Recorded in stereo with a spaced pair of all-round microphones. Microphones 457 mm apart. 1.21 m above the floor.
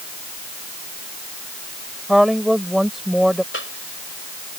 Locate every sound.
2.1 s a woman speaking: centre (ahead or behind)
3.5 s a cough: 25° left (ahead or behind)